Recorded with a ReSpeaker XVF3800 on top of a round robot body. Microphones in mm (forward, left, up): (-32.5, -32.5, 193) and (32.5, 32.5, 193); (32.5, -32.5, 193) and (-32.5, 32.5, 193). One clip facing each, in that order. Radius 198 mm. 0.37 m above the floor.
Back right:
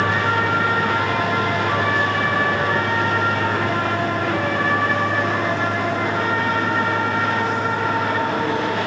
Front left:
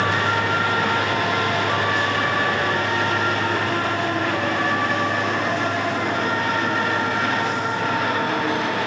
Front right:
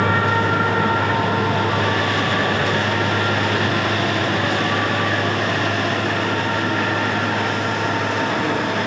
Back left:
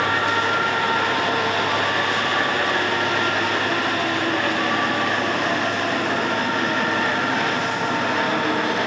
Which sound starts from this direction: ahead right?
A vehicle, at 0.0 s.